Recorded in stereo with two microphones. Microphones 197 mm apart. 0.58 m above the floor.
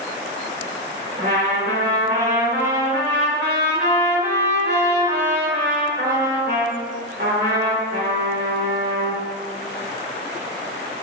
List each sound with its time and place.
1.2 s a trumpet: 60° right (ahead or behind), 2 m